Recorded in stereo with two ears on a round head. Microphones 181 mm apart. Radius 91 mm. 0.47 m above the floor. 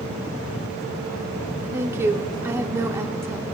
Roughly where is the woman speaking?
Centre.